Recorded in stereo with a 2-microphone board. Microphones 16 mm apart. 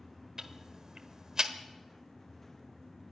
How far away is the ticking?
About 1.3 m.